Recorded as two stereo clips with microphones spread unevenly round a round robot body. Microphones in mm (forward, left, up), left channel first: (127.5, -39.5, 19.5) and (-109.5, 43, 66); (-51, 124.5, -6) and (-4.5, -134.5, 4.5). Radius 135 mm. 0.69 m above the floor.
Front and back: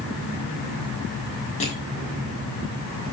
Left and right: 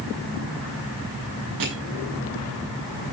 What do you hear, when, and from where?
1.6 s crushing: 80° right, 7 m